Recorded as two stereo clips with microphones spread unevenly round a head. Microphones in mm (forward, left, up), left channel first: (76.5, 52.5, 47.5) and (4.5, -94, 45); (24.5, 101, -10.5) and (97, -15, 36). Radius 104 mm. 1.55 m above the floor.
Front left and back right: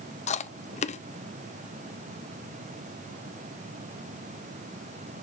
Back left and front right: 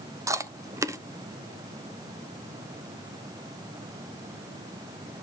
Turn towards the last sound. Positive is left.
turn(degrees=15)